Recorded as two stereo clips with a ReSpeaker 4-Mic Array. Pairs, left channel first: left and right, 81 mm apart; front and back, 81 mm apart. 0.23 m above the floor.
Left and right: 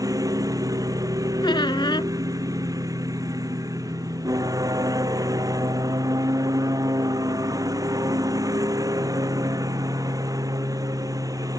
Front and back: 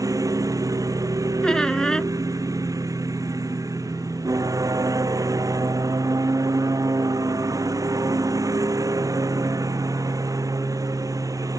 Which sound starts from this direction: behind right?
A lawn mower, at 0.0 s.